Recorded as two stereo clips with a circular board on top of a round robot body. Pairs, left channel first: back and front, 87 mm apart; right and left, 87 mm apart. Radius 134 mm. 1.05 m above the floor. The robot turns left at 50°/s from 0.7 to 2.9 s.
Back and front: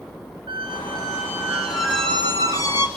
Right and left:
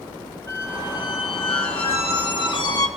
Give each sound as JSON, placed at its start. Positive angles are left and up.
{"t": 0.5, "sound": "a squeak", "azimuth_deg": -35, "distance_m": 1.7}